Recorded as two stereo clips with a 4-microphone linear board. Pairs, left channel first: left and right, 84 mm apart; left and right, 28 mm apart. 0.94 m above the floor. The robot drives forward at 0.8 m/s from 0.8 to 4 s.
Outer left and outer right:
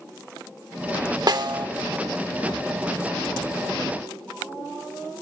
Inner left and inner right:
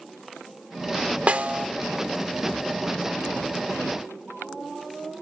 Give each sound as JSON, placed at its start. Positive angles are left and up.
{"t": 1.3, "sound": "a snare drum", "side_deg": -55, "distance_m": 1.0}